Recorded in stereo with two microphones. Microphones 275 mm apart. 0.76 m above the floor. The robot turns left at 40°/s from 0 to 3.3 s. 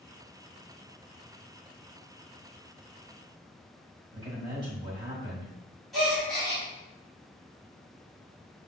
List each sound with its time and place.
4.1 s a man speaking: 20° right (ahead or behind), 1.3 m
5.9 s a gasp: centre (ahead or behind), 1.6 m